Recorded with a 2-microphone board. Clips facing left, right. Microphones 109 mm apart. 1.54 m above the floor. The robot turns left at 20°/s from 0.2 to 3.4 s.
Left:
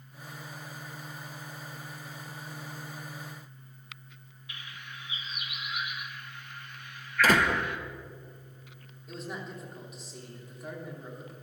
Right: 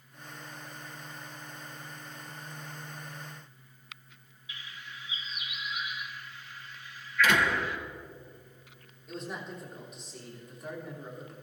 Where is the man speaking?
Centre (ahead or behind), 3 m.